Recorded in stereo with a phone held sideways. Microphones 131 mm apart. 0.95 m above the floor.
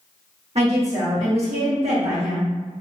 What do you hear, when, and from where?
0.6 s a woman speaking: 55° right (ahead or behind), 1.4 m